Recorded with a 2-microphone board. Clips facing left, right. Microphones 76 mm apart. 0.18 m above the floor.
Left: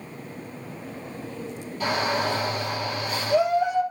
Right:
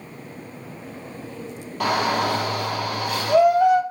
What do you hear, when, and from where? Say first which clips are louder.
1.8 s a shout: right 4 dB; 65° right (ahead or behind), 3.5 m